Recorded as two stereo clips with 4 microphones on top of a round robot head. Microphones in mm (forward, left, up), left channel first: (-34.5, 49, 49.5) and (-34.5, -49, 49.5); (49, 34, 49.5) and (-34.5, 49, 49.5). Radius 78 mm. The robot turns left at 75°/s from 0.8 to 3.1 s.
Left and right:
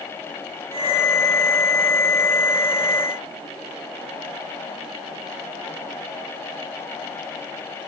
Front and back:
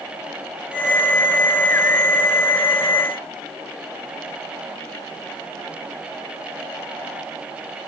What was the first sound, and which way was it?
Only background noise.